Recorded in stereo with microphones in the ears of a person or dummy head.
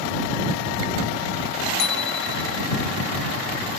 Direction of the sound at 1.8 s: 60° left (ahead or behind).